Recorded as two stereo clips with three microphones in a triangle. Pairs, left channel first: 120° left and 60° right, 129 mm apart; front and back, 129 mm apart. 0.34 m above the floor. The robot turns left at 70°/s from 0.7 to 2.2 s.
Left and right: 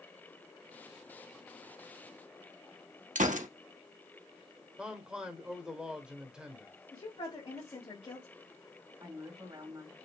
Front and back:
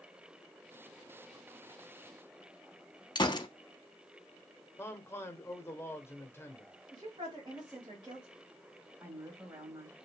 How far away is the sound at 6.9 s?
About 1.4 m.